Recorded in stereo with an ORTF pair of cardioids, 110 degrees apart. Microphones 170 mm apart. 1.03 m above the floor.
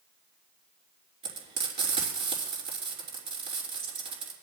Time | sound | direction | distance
1.2 | frying | 40° right | 4.5 m